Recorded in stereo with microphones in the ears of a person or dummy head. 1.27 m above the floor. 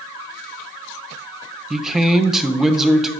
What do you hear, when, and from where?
1.7 s a man speaking: centre (ahead or behind), 0.5 m